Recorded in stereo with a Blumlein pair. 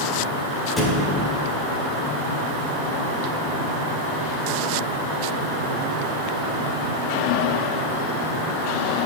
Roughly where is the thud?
Ahead.